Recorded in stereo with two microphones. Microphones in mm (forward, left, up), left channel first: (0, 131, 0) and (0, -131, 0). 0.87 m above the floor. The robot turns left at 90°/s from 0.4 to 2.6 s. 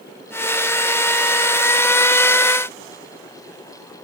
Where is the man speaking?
I don't hear a man speaking.